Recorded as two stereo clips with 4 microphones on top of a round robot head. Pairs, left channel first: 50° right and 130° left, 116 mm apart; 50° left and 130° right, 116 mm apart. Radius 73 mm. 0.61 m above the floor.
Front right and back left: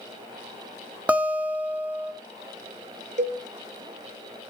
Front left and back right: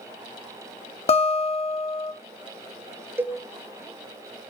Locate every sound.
1.1 s a guitar: 55° left, 1.6 m
3.2 s a cowbell: 155° left, 0.6 m